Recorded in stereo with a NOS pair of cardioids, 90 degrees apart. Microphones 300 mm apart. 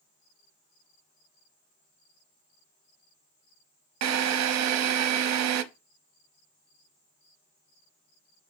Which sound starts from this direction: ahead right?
A drill, at 4.0 s.